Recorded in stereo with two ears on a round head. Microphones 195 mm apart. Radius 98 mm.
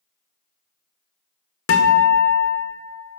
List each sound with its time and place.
1.7 s a guitar: 65° left (ahead or behind), 1.1 m